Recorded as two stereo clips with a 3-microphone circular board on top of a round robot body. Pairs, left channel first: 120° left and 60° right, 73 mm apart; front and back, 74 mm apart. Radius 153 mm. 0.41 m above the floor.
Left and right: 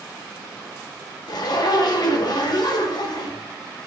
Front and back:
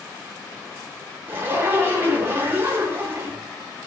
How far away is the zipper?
About 0.7 m.